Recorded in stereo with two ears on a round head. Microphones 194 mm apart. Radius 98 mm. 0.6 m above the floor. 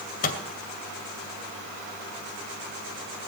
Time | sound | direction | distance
0.2 | a microwave | 40° left (ahead or behind) | 2 m